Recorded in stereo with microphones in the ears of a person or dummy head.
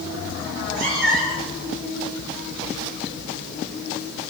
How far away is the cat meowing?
About 5.5 m.